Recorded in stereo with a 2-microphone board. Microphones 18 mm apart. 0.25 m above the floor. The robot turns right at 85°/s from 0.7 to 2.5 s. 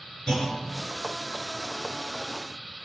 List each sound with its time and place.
0.3 s a clunk: 45° left (ahead or behind), 4.5 m